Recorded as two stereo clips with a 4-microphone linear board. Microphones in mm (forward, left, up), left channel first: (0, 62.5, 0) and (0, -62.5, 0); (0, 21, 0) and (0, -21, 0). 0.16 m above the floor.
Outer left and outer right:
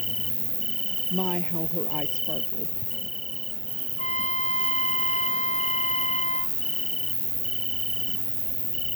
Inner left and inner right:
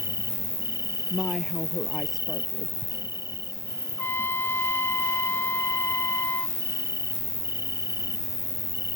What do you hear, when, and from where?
0.0 s an insect: 85° right
1.1 s a woman speaking: centre (ahead or behind)
4.0 s a trumpet: 75° left (ahead or behind)